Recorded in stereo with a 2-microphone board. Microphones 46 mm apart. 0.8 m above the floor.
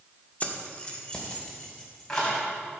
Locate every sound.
0.4 s keys jangling: 35° left (ahead or behind), 1.2 m; by 2.4 s 15° left (ahead or behind), 3.5 m